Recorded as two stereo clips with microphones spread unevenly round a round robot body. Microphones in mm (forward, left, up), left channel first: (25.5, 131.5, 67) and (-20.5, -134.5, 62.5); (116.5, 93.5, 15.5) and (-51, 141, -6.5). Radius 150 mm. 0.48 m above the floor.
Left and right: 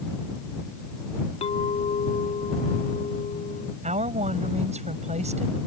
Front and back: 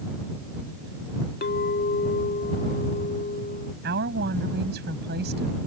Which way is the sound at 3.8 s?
165° right.